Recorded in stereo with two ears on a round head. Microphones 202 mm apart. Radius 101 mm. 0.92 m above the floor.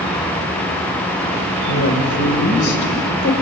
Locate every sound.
1.7 s a woman speaking: 55° left (ahead or behind), 4.5 m